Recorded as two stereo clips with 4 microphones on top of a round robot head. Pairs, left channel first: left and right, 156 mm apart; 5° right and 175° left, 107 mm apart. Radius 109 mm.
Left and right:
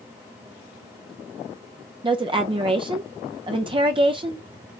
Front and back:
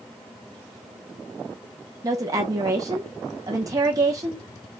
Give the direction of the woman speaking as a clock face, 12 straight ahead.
5 o'clock.